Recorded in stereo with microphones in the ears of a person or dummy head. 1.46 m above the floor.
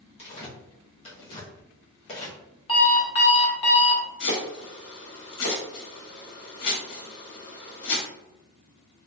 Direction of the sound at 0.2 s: 35° left (ahead or behind).